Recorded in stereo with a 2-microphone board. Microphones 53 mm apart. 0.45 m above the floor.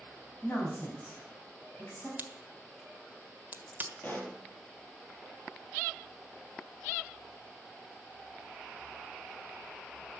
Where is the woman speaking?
60° left (ahead or behind), 3.5 m.